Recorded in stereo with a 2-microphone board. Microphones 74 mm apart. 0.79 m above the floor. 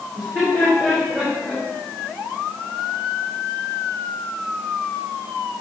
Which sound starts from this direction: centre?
Laughter, at 0.1 s.